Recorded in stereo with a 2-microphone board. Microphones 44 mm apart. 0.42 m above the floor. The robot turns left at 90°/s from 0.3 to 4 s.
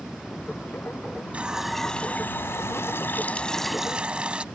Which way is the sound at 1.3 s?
145° right.